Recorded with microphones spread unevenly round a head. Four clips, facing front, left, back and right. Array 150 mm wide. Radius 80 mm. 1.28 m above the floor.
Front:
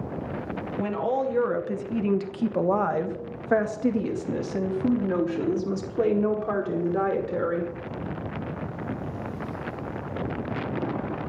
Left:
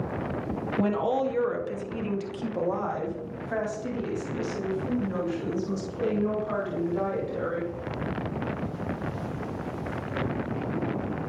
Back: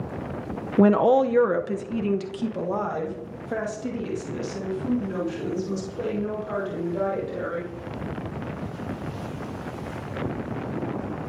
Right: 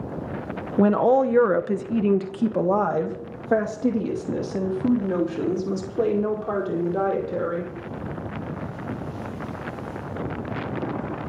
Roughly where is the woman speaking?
Behind right.